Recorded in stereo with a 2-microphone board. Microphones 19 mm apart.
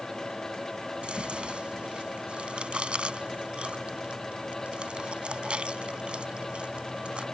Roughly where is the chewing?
Right.